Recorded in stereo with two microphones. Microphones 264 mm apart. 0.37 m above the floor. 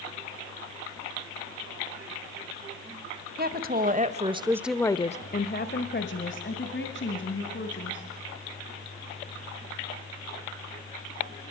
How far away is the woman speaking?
About 2 m.